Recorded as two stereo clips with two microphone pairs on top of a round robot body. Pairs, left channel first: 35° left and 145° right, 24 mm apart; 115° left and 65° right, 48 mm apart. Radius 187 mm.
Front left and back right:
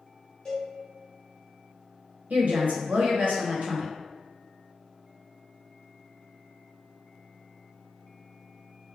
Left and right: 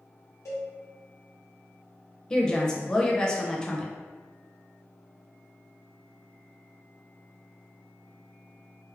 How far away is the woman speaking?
About 0.8 m.